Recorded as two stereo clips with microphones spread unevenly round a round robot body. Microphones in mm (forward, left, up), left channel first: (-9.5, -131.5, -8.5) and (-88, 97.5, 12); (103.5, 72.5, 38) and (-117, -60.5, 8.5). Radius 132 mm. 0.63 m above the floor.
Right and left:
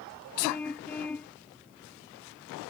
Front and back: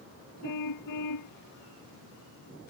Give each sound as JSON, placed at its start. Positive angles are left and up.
{"t": 0.4, "sound": "a car horn", "azimuth_deg": 15}